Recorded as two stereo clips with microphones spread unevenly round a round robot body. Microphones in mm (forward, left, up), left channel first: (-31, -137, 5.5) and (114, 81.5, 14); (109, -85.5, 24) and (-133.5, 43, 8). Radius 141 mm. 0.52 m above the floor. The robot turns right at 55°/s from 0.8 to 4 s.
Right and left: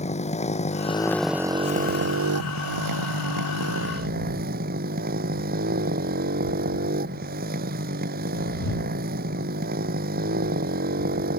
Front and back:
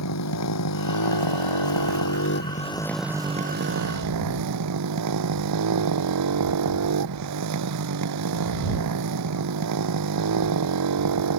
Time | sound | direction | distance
0.0 | a motorcycle | 60° right | ?